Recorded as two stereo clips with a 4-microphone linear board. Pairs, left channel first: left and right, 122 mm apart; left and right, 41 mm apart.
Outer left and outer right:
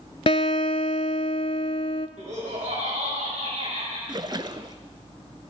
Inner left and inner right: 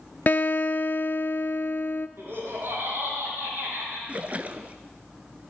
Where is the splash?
35° right (ahead or behind), 0.7 m.